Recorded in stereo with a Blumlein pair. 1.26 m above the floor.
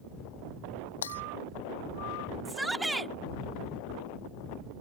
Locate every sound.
1.0 s breaking glass: 70° left
2.5 s a shout: 10° right